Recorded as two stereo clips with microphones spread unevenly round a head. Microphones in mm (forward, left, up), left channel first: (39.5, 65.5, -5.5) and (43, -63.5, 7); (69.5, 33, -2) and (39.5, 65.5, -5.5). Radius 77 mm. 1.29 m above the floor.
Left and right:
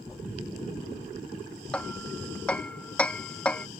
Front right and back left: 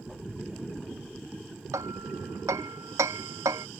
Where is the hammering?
175° left.